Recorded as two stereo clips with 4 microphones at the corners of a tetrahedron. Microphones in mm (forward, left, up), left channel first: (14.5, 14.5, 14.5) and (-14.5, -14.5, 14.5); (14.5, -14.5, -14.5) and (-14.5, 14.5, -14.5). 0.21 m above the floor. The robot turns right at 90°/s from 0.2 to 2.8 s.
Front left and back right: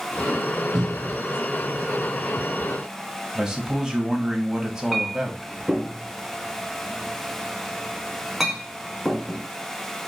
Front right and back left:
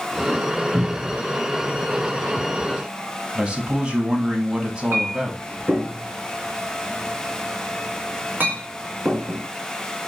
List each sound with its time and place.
0.7 s a cupboard door: 110° right, 2 m; by 1.2 s 70° right, 2 m
3.4 s a man speaking: 170° left, 1.1 m
4.9 s a clink: 140° left, 1.6 m